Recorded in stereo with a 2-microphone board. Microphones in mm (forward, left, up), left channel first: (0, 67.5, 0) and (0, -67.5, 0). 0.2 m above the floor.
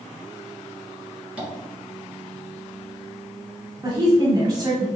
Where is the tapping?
10° right (ahead or behind), 1.4 m.